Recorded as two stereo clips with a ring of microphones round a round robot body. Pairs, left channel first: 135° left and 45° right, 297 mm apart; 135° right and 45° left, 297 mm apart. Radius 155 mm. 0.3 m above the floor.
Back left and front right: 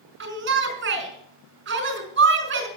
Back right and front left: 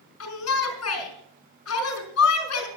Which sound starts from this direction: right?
A shout, at 0.2 s.